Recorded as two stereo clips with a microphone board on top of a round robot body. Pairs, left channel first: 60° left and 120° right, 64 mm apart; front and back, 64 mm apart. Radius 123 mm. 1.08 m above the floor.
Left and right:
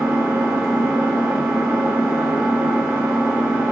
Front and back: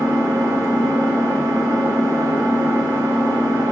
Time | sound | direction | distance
0.0 | an engine running | 175° left | 1.8 m